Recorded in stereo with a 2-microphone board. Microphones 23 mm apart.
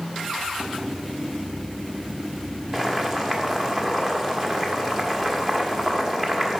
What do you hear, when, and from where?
2.7 s boiling: 20° right (ahead or behind), 1.3 m